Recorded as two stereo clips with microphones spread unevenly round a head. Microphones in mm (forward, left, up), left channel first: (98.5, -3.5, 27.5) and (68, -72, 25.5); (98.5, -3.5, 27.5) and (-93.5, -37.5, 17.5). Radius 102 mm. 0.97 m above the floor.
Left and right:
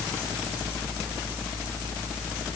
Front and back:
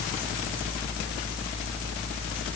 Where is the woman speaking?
No woman speaking in this recording.